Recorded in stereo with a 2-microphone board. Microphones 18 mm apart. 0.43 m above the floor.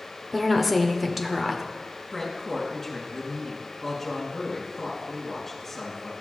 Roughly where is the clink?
No clink in this recording.